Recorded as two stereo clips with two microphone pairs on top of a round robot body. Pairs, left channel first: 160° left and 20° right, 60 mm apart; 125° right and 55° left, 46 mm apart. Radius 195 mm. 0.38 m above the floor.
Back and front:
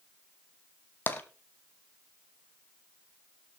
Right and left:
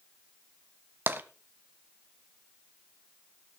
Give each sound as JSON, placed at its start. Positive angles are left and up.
{"t": 1.1, "sound": "tapping", "azimuth_deg": 100, "distance_m": 0.9}